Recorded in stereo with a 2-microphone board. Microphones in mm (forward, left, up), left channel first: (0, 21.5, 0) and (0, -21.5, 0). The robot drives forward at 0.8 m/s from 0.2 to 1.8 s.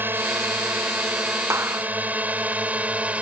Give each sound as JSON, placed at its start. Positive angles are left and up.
{"t": 0.0, "sound": "a drone", "side_deg": -55}
{"t": 1.5, "sound": "a clap", "side_deg": -85}